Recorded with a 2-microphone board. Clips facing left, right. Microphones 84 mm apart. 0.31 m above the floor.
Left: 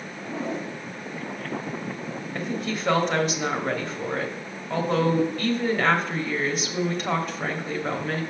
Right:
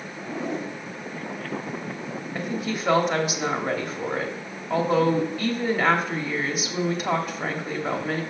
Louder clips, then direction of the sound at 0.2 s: Right 1 dB; 15° right (ahead or behind).